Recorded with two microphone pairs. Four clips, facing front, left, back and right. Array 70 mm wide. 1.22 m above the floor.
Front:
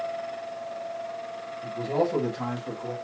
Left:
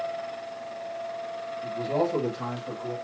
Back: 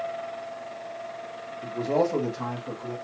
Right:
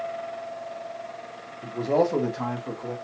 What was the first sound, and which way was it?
A man speaking, 140° right.